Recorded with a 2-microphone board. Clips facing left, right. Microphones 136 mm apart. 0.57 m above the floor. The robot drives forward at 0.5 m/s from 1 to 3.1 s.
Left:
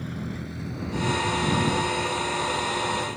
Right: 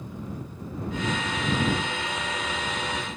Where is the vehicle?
90° left.